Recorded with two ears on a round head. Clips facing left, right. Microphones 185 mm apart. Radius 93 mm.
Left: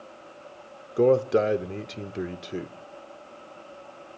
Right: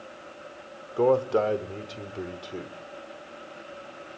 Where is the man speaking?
25° left (ahead or behind), 0.9 m.